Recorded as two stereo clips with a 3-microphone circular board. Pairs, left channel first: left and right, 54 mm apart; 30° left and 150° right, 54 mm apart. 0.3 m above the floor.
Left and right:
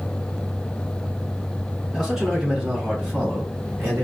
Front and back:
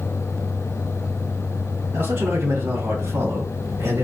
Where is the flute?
No flute in this recording.